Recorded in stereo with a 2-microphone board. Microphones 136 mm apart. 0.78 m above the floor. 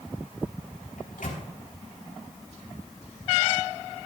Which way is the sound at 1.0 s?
85° left.